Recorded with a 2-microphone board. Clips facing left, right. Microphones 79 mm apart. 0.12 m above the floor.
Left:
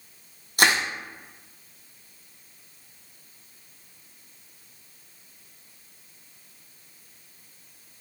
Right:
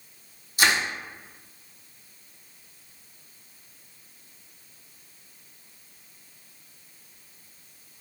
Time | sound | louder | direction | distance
0.6 | crushing | left 2 dB | 55° left (ahead or behind) | 1.0 m